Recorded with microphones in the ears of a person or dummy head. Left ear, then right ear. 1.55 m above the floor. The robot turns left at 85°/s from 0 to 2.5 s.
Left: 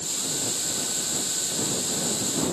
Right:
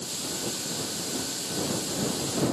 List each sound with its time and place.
Only background noise.